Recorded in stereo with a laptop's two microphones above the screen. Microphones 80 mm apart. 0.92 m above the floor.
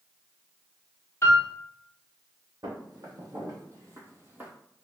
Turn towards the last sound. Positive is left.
turn(degrees=-20)  # may be behind; listen again after turning